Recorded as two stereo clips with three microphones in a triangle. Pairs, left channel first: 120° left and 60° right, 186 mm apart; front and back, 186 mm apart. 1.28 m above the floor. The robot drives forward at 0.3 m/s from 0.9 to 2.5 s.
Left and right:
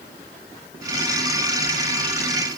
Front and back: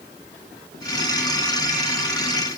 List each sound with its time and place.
Only background noise.